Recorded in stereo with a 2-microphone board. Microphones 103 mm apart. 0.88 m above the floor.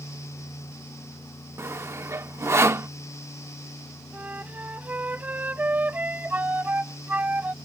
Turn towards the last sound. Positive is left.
turn(degrees=-15)  # may be behind; listen again after turning